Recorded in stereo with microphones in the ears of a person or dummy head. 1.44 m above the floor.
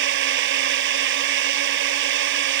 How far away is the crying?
I don't hear crying.